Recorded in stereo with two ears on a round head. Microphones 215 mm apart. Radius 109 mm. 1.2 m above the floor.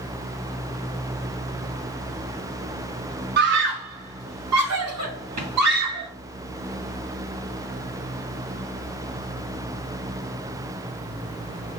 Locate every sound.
3.4 s a scream: 45° right (ahead or behind), 0.7 m; by 6.1 s 80° right, 3 m